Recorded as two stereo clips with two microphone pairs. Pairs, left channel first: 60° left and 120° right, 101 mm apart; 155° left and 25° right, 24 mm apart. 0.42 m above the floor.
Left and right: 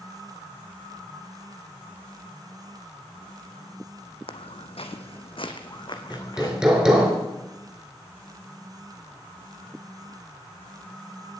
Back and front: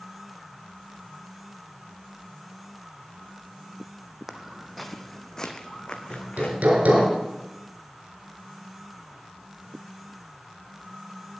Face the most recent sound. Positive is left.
turn(degrees=-35)